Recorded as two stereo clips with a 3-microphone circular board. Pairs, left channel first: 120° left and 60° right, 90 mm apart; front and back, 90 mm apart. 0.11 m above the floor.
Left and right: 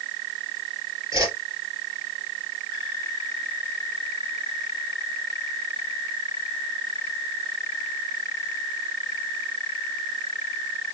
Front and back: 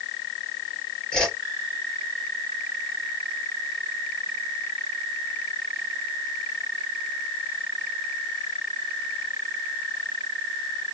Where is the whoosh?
80° right, 2.5 m.